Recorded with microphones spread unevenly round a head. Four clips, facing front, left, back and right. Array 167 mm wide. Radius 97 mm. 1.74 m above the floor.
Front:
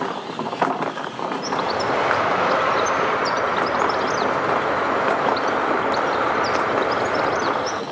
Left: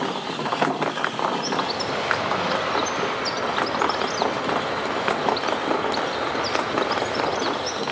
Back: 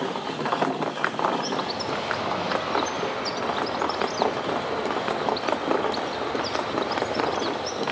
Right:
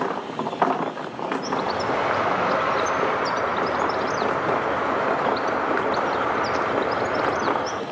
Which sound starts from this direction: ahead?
A bird, at 1.4 s.